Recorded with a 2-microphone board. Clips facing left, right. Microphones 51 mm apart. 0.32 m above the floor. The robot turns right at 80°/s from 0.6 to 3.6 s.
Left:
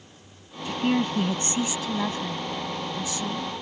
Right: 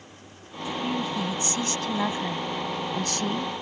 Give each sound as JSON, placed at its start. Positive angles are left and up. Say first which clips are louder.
{"t": 0.7, "sound": "a woman speaking", "louder": "left 4 dB", "azimuth_deg": 85}